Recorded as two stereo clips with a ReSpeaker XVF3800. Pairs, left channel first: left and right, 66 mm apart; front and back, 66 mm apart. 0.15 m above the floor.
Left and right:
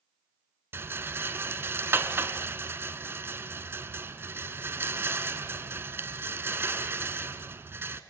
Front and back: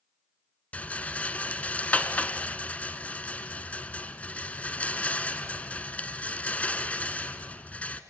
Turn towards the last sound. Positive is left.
turn(degrees=-60)